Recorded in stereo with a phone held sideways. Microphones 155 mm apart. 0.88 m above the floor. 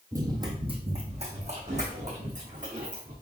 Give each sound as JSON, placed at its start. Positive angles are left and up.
{"t": 0.1, "sound": "running footsteps", "side_deg": -20, "distance_m": 1.5}